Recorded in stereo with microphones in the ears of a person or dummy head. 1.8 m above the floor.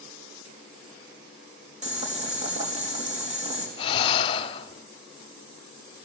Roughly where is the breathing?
Left.